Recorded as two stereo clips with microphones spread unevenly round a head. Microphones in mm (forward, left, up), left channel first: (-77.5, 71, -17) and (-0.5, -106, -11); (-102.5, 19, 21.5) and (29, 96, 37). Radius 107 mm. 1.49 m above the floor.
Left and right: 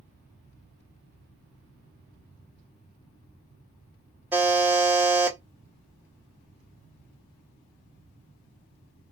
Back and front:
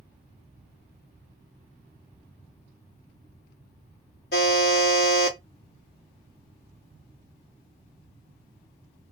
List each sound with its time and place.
4.3 s a buzzer: 145° right, 1.1 m